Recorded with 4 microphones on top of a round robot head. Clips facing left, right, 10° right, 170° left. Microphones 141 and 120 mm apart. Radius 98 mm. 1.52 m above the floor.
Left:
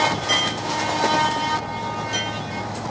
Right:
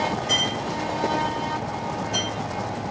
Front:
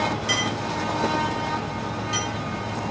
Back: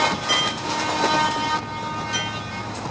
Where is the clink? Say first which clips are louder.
Left 2 dB, back 1 dB; 70° left, 2.5 m.